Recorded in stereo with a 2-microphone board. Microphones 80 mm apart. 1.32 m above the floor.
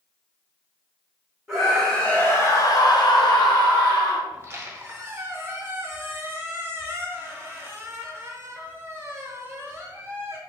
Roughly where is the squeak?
Right.